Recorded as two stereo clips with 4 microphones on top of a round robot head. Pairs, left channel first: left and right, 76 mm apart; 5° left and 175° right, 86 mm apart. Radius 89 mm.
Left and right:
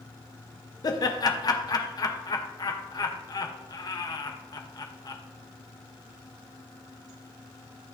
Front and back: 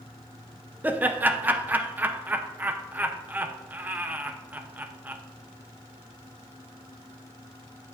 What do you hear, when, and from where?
0.8 s laughter: 115° left, 0.8 m